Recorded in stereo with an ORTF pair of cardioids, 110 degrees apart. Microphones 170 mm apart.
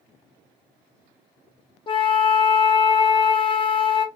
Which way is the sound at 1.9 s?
30° left.